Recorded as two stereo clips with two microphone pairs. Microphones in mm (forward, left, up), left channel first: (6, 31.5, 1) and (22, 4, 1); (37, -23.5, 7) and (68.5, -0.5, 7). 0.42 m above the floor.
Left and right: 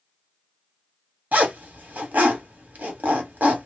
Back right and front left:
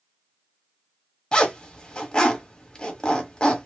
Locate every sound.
1.3 s a zipper: 75° right, 1.5 m